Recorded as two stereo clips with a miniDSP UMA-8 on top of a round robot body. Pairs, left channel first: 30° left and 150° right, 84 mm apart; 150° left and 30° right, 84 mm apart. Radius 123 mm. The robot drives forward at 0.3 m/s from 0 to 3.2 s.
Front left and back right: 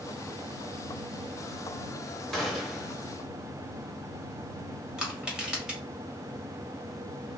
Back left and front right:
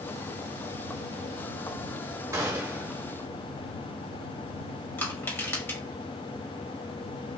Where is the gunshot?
55° right, 1.0 m; by 3.0 s 70° right, 1.0 m.